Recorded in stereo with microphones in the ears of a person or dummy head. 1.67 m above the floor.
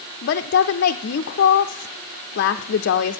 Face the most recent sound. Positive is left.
turn(degrees=60)  # may be behind; listen again after turning